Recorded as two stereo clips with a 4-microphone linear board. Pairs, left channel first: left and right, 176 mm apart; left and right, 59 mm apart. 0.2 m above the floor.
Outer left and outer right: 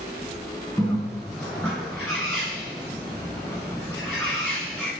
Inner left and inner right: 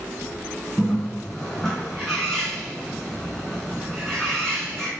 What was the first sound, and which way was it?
A bird, 5° left (ahead or behind).